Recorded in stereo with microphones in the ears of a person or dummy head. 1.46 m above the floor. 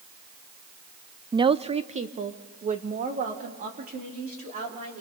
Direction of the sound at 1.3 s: 20° right (ahead or behind).